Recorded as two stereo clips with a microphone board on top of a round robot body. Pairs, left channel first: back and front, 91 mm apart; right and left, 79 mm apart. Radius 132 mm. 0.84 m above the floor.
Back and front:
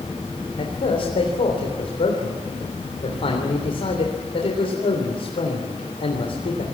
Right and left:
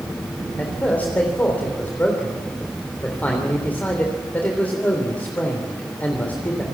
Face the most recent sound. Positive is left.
turn(degrees=-160)